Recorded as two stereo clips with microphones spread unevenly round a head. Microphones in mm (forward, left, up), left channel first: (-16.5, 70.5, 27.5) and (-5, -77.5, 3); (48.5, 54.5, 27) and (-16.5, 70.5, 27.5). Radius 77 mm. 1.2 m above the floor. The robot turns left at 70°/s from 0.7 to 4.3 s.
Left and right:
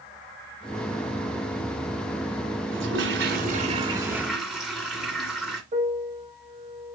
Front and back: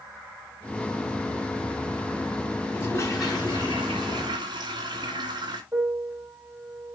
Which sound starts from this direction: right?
A toilet flushing, at 2.7 s.